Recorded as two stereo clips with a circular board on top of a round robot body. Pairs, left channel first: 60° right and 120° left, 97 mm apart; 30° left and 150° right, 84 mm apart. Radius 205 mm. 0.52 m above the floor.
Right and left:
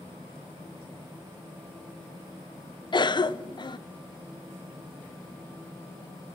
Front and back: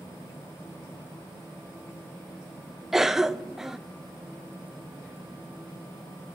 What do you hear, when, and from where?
2.9 s a cough: 65° right, 0.8 m